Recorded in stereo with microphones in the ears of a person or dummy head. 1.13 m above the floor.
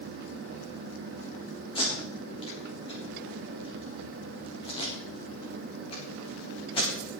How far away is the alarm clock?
No alarm clock in this recording.